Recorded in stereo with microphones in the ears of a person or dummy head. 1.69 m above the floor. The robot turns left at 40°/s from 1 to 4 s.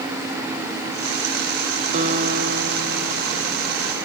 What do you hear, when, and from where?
1.9 s a guitar: 45° right, 1.6 m; by 3.8 s 120° right, 1.6 m